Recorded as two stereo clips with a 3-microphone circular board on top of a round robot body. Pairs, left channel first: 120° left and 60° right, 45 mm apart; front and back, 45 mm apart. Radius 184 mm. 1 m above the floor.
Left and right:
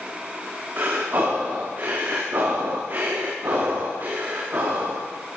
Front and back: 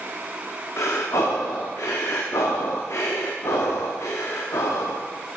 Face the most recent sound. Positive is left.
turn(degrees=-15)